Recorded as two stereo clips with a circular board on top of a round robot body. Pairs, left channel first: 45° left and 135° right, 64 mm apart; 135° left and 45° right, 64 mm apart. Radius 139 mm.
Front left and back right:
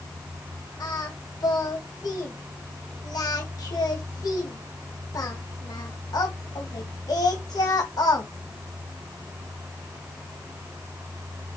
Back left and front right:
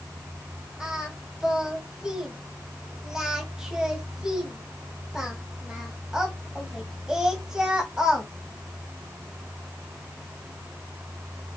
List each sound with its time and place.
0.8 s singing: 35° left, 2.5 m